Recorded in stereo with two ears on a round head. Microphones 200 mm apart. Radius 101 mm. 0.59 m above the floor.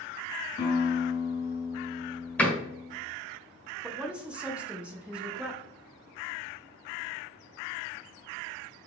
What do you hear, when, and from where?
0.6 s a guitar: 45° left (ahead or behind), 2.5 m
2.4 s a door slam: 10° left (ahead or behind), 1.4 m
3.8 s a woman speaking: 5° right (ahead or behind), 0.8 m